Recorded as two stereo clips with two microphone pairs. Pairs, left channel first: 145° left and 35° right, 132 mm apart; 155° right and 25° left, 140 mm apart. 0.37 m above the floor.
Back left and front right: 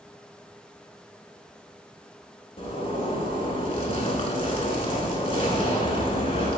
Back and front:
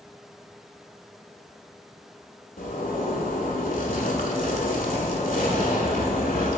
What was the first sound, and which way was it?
A zipper, 175° right.